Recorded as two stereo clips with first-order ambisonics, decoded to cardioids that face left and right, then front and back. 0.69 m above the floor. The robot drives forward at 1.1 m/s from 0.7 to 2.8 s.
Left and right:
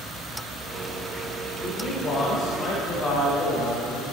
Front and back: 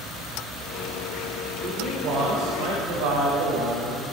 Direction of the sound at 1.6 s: 150° left.